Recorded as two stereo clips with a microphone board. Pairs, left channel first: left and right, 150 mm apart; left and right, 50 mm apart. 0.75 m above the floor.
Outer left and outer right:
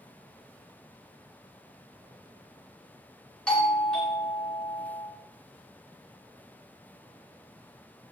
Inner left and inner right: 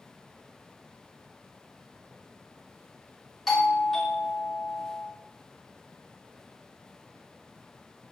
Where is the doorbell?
5° left (ahead or behind), 3 m.